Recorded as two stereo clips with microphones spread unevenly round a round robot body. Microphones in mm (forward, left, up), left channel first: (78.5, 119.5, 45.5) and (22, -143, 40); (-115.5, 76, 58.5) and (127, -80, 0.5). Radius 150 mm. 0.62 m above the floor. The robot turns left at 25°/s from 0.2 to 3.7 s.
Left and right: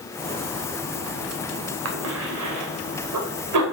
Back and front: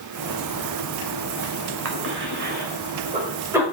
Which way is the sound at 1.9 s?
70° right.